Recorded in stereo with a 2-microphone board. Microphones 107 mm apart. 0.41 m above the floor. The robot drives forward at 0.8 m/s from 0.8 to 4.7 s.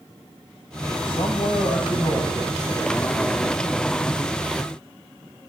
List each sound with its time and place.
1.1 s a man speaking: 55° left (ahead or behind), 2.5 m; by 3.6 s 30° left (ahead or behind), 4 m